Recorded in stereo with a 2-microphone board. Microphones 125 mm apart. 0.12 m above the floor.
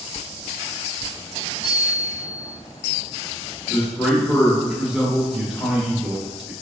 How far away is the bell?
About 0.7 m.